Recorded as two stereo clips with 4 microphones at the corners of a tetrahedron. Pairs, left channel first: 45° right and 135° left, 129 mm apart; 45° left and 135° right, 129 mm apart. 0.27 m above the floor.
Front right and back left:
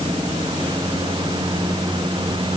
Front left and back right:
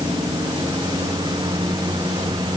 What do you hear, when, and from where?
Only background noise.